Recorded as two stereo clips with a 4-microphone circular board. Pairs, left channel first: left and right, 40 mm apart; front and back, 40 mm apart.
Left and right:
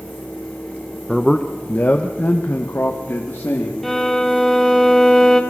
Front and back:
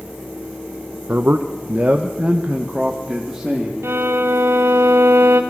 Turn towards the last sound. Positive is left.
turn(degrees=170)